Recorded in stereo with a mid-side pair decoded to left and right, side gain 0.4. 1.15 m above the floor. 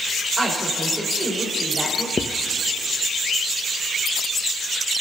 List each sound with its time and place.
0.4 s a woman speaking: 25° right, 4.5 m
2.2 s writing: 30° left, 0.6 m